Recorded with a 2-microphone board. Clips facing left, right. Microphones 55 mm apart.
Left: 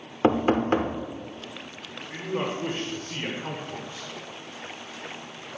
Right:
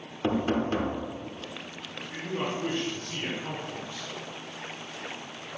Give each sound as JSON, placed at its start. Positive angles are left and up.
{"t": 0.2, "sound": "knocking", "side_deg": 45, "distance_m": 0.7}
{"t": 2.1, "sound": "a man speaking", "side_deg": 25, "distance_m": 1.3}